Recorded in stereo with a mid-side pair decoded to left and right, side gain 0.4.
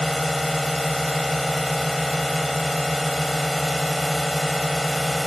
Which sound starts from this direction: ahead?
A drone, at 0.0 s.